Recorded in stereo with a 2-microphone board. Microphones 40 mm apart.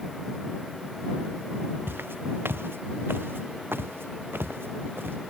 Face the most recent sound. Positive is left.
turn(degrees=-65)  # may be behind; listen again after turning